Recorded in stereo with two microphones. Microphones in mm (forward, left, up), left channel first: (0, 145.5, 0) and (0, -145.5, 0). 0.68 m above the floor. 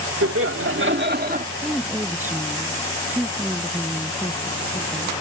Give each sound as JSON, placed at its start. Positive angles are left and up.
{"t": 0.2, "sound": "laughter", "side_deg": -55}
{"t": 1.6, "sound": "a woman speaking", "side_deg": -5}